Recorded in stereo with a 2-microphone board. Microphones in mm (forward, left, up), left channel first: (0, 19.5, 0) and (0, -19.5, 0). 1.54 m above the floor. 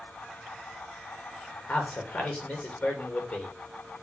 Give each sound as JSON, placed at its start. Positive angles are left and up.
{"t": 1.7, "sound": "a man speaking", "side_deg": 30, "distance_m": 3.0}